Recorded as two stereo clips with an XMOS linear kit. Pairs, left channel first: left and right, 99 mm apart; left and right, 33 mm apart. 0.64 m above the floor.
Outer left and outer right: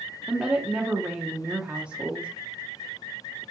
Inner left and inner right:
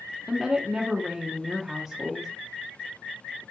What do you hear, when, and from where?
0.3 s a woman speaking: 10° right (ahead or behind), 0.9 m